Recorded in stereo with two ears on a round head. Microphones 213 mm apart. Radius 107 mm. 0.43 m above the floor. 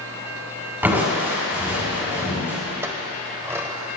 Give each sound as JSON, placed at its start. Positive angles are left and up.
{"t": 0.8, "sound": "crushing", "side_deg": -10, "distance_m": 4.0}
{"t": 2.8, "sound": "a clink", "side_deg": -10, "distance_m": 1.1}